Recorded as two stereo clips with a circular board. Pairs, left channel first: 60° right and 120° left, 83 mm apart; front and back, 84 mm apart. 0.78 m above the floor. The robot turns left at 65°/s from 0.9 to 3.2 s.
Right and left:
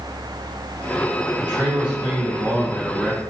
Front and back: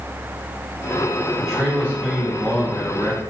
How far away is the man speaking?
About 1.4 m.